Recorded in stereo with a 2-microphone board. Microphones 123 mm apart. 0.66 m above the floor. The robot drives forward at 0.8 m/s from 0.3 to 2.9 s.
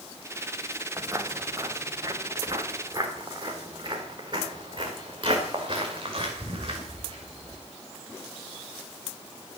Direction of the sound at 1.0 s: 30° right (ahead or behind).